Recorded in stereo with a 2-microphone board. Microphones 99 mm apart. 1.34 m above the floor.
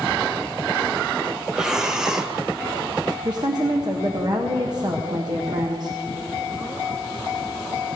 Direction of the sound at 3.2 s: 45° right (ahead or behind).